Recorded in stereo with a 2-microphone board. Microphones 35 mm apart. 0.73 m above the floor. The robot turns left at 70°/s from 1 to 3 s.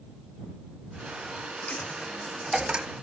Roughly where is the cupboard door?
I don't hear a cupboard door.